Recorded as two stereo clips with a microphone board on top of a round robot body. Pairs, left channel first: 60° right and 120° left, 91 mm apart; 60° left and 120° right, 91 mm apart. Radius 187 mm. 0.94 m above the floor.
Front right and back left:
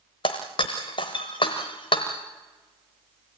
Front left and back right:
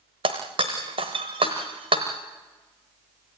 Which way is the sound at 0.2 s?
95° right.